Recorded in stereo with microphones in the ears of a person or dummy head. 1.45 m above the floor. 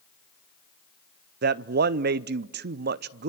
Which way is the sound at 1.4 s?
55° right (ahead or behind).